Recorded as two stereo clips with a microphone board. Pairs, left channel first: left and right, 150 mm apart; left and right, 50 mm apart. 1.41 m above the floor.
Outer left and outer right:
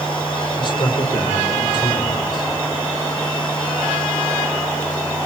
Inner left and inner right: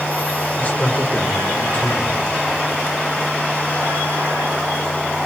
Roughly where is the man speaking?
Left.